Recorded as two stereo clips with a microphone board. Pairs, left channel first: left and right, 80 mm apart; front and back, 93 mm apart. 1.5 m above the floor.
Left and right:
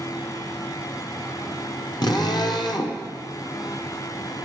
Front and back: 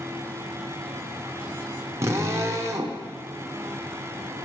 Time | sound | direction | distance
2.0 | a drill | 120° left | 1.2 m